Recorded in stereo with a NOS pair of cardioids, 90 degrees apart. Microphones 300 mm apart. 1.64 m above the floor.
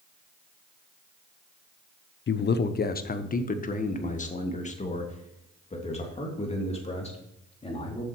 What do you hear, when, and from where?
2.3 s a man speaking: 40° left, 0.7 m; by 8.1 s 20° left, 4 m